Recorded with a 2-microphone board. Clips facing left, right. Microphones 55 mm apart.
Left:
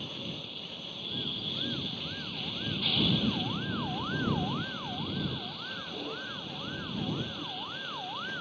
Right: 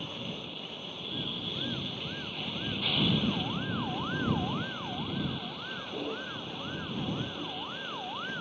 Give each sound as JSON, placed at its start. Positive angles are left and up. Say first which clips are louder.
{"t": 0.0, "sound": "a vehicle", "louder": "right 1 dB", "side_deg": -20}